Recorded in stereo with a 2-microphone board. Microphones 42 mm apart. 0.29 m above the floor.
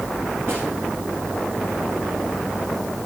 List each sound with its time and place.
0.5 s a snare drum: 70° right (ahead or behind), 5 m